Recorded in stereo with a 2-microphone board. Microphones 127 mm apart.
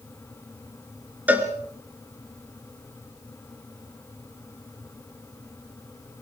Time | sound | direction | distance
1.3 | a cowbell | 10° right (ahead or behind) | 2.0 m